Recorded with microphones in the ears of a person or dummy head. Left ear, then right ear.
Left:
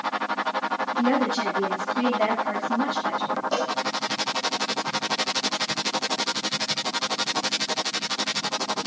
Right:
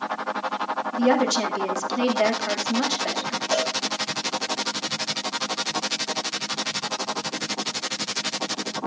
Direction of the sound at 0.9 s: 75° right (ahead or behind).